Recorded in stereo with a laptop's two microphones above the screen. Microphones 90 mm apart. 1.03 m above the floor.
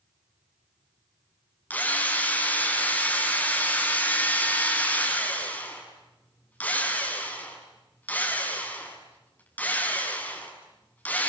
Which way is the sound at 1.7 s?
20° left (ahead or behind).